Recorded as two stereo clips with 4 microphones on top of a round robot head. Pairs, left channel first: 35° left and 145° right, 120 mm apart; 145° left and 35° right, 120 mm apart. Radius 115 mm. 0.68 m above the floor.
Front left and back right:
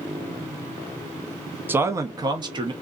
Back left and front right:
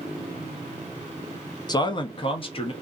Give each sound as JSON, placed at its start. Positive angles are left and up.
{"t": 1.7, "sound": "a man speaking", "azimuth_deg": 155, "distance_m": 0.6}